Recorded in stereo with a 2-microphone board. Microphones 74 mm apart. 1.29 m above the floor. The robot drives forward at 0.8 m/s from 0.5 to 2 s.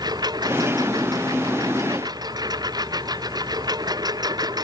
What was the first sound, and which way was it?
A lawn mower, 65° right (ahead or behind).